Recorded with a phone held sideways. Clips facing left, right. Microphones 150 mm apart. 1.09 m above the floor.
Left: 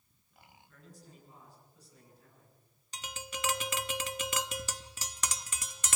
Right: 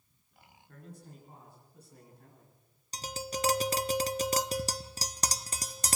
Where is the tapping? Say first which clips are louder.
Right 6 dB; 40° right (ahead or behind), 0.6 m.